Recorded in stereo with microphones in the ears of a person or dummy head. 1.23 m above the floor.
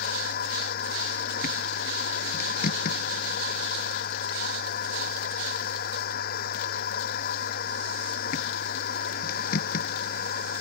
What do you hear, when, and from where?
0.0 s a machine running: 55° left (ahead or behind)